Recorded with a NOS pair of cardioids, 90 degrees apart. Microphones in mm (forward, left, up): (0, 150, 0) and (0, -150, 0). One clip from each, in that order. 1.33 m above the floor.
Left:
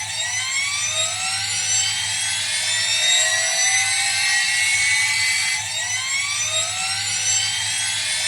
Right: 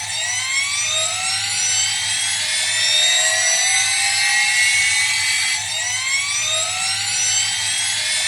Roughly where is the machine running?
Ahead.